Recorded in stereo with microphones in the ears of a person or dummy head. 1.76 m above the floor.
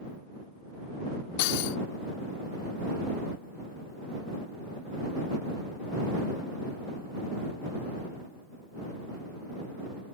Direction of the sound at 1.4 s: 60° left (ahead or behind).